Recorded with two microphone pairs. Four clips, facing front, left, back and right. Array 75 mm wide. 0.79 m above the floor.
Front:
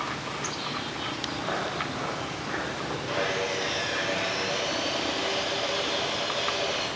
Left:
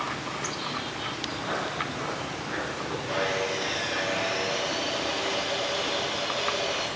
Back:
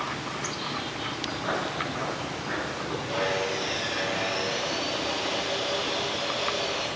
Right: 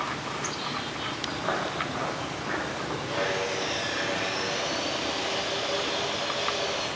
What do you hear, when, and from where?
1.3 s footsteps: 90° right, 1.9 m; by 3.0 s 85° right, 3 m
3.1 s sawing: 50° left, 2.5 m